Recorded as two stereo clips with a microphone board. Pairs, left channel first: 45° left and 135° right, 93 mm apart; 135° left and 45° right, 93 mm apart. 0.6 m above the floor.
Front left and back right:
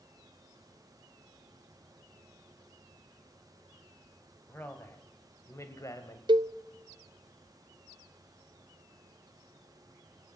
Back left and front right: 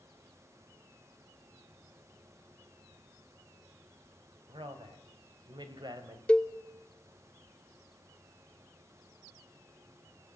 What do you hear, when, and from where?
4.5 s a man speaking: 25° right, 3.5 m; by 6.2 s 5° right, 3 m
6.3 s a cowbell: 150° right, 0.7 m